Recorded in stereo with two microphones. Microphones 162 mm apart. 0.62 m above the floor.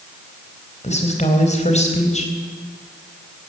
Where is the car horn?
No car horn in this recording.